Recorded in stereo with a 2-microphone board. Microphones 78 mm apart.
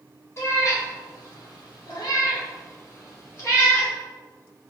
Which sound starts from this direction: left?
A cat meowing, at 0.4 s.